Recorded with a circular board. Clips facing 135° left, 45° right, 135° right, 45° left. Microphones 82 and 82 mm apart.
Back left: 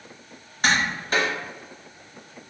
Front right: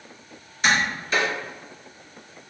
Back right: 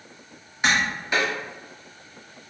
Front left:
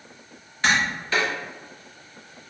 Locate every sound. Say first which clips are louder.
0.6 s tapping: front right 1 dB, even; 155° left, 1.0 m